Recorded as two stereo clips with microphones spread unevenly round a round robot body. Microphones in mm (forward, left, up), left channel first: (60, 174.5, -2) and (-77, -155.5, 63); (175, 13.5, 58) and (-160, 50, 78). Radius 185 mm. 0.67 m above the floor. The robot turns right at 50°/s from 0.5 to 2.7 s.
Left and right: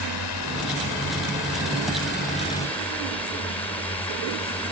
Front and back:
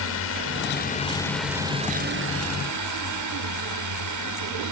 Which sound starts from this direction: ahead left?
A drone, at 0.0 s.